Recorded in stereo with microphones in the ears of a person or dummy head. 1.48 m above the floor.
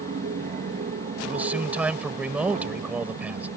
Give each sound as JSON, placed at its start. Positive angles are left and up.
{"t": 0.0, "sound": "an aircraft", "side_deg": -35}
{"t": 1.2, "sound": "a man speaking", "side_deg": -5}